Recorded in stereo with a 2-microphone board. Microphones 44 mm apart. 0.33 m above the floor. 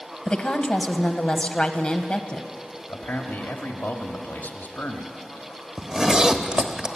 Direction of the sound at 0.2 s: 25° left (ahead or behind).